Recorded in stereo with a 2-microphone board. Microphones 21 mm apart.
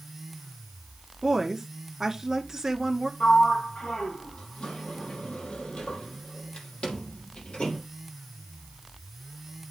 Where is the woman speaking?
20° right (ahead or behind), 1.8 m.